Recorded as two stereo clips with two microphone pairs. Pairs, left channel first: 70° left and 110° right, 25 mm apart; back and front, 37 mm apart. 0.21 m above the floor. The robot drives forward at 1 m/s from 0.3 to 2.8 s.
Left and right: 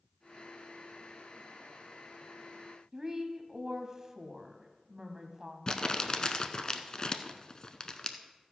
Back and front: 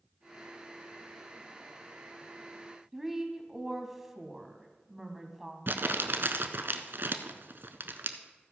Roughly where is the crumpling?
Ahead.